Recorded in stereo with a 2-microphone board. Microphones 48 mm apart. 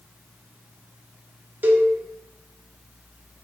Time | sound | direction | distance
1.6 | a cowbell | 45° right (ahead or behind) | 0.6 m